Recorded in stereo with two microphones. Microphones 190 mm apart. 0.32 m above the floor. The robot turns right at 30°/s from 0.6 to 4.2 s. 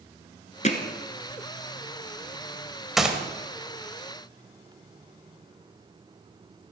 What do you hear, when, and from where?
0.6 s hammering: 40° left (ahead or behind), 1.3 m; by 0.8 s 35° left (ahead or behind), 1.3 m
3.0 s a gunshot: centre (ahead or behind), 1.2 m; by 3.2 s 5° right (ahead or behind), 1.2 m